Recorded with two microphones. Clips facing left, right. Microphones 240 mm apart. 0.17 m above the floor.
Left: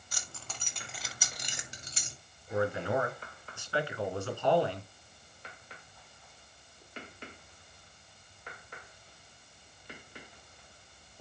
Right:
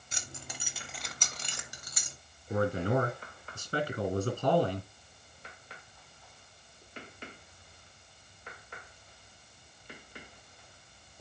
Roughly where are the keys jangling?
Right.